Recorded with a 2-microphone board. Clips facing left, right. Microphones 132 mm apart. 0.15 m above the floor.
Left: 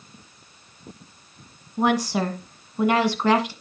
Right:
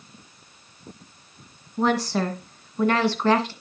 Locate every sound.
1.8 s a woman speaking: 10° left (ahead or behind), 1.4 m